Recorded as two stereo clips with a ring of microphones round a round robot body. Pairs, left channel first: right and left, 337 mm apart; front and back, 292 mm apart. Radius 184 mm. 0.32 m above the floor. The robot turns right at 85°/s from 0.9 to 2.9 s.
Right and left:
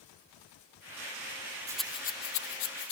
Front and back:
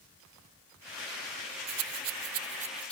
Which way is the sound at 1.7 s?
170° left.